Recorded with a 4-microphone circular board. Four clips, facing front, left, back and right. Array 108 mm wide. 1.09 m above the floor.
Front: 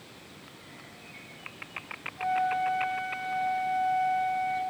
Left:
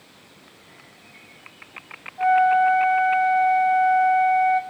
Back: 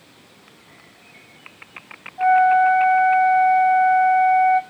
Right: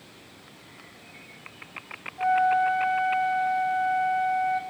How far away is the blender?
I don't hear a blender.